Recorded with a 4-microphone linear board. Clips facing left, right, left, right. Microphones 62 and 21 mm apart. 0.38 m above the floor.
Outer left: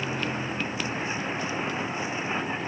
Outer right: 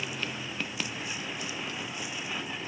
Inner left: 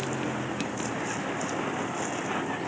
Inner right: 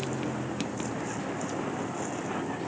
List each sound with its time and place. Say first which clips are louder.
0.0 s a vehicle: outer left 6 dB, inner left 2 dB; 35° left (ahead or behind)